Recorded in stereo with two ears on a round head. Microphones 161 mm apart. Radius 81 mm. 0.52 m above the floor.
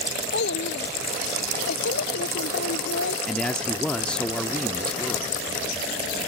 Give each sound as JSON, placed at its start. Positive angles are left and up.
{"t": 0.3, "sound": "a child speaking", "side_deg": 70}
{"t": 3.3, "sound": "a man speaking", "side_deg": 5}